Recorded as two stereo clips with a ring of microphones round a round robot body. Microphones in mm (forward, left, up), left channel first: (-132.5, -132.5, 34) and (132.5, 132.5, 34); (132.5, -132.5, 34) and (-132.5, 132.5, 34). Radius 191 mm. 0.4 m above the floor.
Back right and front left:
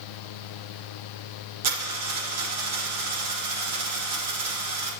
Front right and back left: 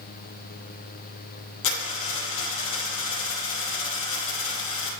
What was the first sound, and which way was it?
A dropped coin, 5° right.